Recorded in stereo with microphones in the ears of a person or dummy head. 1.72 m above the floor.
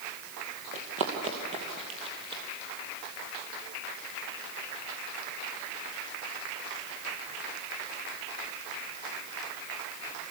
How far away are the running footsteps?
About 2.5 m.